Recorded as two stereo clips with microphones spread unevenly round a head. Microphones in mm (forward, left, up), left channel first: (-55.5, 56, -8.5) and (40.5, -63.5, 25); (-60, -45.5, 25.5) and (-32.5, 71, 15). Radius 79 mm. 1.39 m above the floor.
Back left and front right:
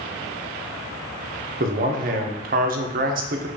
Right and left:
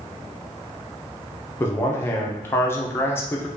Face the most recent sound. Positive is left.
turn(degrees=-30)